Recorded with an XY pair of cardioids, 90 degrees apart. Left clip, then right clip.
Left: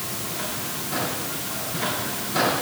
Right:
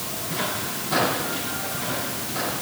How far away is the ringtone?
I don't hear a ringtone.